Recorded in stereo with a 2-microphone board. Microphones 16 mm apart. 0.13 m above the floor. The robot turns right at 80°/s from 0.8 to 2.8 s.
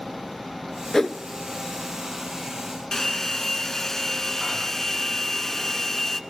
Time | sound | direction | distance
0.9 | a whoosh | 35° left (ahead or behind) | 0.6 m
2.9 | a hair dryer | 30° left (ahead or behind) | 0.8 m